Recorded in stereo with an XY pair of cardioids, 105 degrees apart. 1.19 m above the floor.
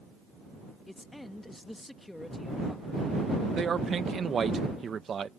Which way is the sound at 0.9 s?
10° left.